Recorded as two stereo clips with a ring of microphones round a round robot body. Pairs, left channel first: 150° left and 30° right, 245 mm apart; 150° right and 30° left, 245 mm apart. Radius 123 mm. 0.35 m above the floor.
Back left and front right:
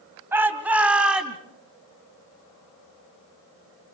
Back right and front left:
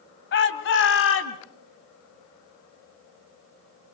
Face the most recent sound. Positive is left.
turn(degrees=-120)